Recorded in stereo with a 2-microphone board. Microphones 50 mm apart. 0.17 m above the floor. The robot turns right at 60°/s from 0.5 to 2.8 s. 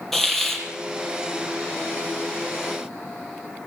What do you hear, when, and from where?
0.1 s a hiss: 5° left (ahead or behind), 3.5 m; by 0.6 s 15° left (ahead or behind), 3.5 m